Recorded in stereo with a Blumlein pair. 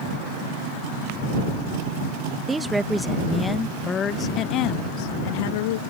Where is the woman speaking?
10° right; by 5.8 s 55° left.